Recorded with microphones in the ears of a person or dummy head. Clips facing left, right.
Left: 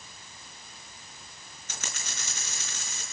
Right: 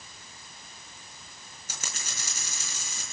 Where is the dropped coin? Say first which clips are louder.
Left 1 dB; 10° right (ahead or behind), 6 m.